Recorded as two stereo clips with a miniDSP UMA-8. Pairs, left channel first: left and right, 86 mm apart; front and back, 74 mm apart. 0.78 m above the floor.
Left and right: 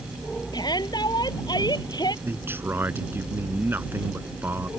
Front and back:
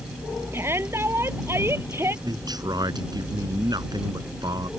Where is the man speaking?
155° right.